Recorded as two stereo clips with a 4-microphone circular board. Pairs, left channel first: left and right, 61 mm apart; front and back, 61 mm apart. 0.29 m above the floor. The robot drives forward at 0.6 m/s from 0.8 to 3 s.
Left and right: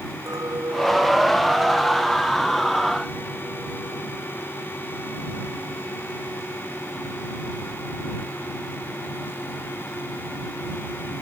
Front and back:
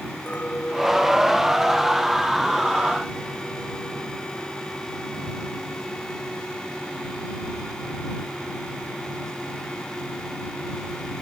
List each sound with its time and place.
0.3 s a clink: 65° right; by 4.1 s 70° right